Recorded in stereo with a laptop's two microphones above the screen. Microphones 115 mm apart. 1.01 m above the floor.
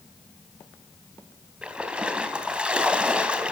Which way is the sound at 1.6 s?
10° right (ahead or behind).